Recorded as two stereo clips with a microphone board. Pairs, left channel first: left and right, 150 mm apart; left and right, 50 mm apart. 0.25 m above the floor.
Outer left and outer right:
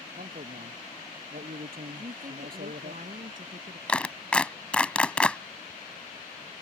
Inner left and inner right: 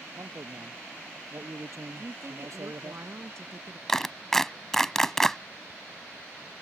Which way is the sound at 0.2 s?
60° right (ahead or behind).